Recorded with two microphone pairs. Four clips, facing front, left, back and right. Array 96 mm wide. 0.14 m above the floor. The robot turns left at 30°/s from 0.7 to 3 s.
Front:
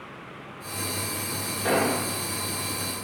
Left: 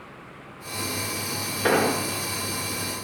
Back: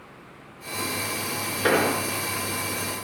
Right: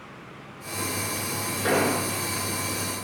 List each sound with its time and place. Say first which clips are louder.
1.6 s an explosion: left 2 dB, back 2 dB; 160° left, 1.3 m; by 2.0 s 150° left, 1.3 m